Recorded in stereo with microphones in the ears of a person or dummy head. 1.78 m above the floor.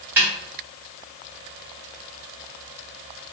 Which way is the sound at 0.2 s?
15° right (ahead or behind).